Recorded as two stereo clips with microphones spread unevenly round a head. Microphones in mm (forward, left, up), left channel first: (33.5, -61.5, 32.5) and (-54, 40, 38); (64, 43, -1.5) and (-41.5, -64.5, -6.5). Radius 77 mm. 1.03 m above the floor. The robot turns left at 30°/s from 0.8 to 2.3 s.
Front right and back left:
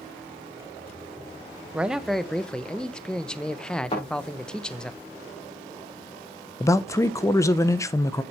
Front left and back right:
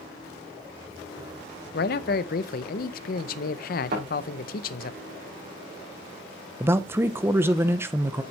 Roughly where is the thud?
Right.